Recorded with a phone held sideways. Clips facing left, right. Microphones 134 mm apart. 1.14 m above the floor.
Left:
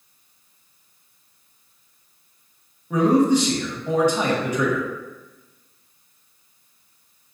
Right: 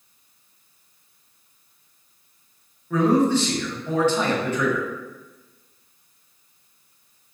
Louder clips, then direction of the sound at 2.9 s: Left 2 dB; 15° left (ahead or behind).